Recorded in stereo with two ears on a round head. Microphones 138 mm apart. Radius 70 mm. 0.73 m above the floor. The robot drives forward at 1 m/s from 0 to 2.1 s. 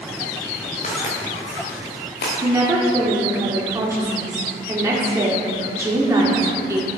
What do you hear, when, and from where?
0.8 s footsteps: 45° left (ahead or behind), 4 m; by 2.3 s 65° left (ahead or behind), 4 m
2.4 s a woman speaking: 20° right (ahead or behind), 1.7 m